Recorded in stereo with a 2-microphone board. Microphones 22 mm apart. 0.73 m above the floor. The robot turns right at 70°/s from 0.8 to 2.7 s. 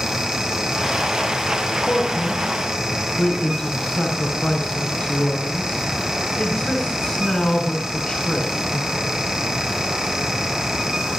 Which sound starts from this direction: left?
A man speaking, at 1.8 s.